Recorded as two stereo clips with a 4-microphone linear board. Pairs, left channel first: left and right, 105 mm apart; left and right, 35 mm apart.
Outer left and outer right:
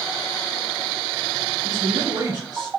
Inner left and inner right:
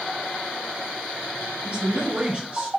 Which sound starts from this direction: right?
A man speaking, at 1.6 s.